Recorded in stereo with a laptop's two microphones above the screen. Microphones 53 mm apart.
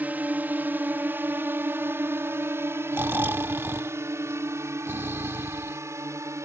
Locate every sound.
0.0 s a drone: 35° right (ahead or behind); by 6.5 s 70° right (ahead or behind)
2.9 s snoring: 45° right (ahead or behind)